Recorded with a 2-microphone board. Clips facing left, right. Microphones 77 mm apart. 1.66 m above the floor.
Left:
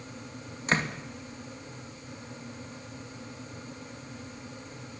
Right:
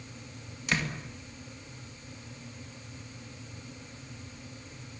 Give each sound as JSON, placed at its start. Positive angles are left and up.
{"t": 0.7, "sound": "a door slam", "side_deg": 35, "distance_m": 2.5}